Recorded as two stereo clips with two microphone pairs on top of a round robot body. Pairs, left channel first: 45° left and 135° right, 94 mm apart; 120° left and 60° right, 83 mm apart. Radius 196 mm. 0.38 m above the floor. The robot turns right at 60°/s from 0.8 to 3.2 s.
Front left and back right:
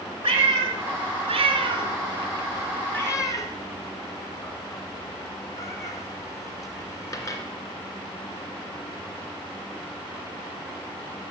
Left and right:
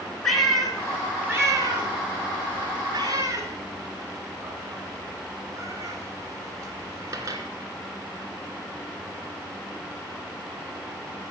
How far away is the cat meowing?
About 2.5 m.